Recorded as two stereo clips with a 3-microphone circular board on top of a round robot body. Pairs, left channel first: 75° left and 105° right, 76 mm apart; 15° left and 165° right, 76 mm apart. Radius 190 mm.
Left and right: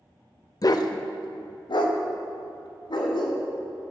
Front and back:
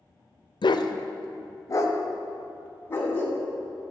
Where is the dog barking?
35° left, 0.6 m; by 3.4 s 80° left, 1.8 m.